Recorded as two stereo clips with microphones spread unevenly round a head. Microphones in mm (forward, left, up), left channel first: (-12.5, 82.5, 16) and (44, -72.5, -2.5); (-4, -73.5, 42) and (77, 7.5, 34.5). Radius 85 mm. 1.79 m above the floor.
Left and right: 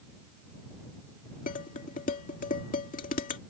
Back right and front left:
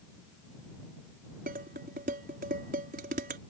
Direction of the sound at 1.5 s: 75° left.